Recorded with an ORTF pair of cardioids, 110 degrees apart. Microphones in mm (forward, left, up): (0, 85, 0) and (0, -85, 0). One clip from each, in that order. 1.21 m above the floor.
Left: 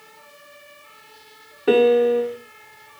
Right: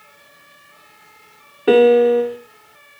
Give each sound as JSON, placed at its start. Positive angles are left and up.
{"t": 1.7, "sound": "a piano", "azimuth_deg": -20, "distance_m": 0.7}